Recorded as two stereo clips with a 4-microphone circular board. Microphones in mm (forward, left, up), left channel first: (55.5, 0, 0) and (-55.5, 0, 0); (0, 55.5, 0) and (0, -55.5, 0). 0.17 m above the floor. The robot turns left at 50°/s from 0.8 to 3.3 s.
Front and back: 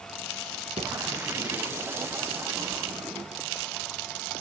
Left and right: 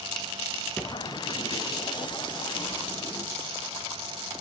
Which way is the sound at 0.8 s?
175° left.